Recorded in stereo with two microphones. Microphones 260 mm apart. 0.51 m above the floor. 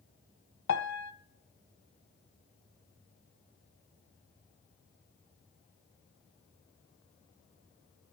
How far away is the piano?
About 0.8 m.